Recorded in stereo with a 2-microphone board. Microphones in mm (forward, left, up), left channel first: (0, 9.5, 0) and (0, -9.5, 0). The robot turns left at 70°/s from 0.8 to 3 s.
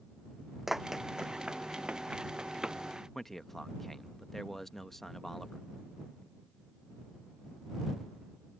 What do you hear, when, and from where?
0.7 s running footsteps: 15° right (ahead or behind); by 2.8 s 30° right (ahead or behind)
3.1 s a man speaking: 15° left (ahead or behind)